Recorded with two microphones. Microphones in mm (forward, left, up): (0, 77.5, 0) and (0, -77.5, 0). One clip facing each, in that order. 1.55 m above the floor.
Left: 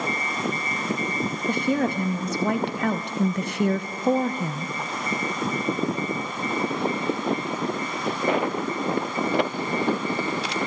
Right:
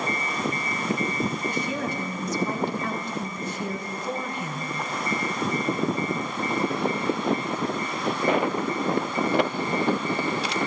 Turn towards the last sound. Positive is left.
turn(degrees=25)  # may be behind; listen again after turning